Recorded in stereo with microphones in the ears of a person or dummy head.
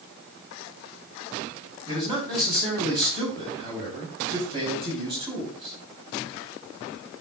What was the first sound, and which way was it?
A man speaking, 25° right (ahead or behind).